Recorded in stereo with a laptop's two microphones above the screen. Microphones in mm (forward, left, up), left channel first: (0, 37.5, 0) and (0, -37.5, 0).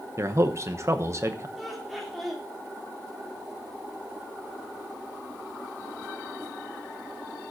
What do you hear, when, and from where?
0.2 s a man speaking: 40° right (ahead or behind), 0.9 m
1.6 s laughter: 5° right (ahead or behind), 2 m